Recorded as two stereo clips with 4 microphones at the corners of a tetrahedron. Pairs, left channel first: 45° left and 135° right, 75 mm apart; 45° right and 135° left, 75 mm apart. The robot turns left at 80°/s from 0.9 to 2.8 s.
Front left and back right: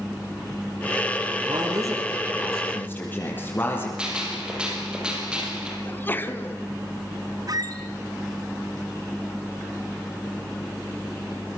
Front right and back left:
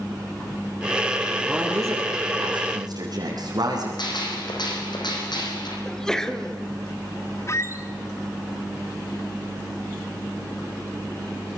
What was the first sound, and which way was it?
A man speaking, 145° right.